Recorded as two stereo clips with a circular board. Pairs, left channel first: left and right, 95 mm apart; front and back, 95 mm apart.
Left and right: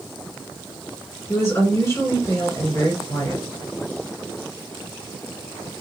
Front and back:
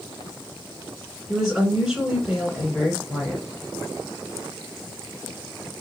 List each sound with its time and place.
1.3 s a woman speaking: 105° left, 1.8 m